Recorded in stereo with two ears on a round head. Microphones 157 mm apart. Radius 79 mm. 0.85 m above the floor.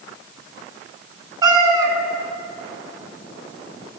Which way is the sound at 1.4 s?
20° right (ahead or behind).